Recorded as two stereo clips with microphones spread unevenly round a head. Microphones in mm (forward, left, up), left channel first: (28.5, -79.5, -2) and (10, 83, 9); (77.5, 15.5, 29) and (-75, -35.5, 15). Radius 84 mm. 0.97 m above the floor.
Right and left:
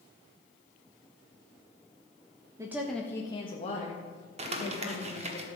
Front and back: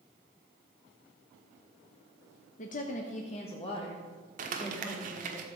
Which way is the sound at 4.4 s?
155° left.